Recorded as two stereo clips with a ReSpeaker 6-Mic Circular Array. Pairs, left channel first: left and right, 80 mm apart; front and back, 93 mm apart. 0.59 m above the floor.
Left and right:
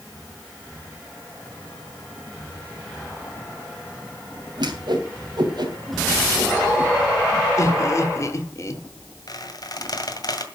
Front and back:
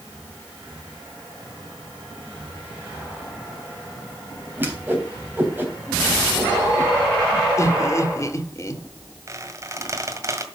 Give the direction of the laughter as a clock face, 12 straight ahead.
10 o'clock.